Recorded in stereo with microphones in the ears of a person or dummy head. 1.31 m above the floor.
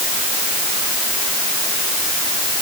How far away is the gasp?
I don't hear a gasp.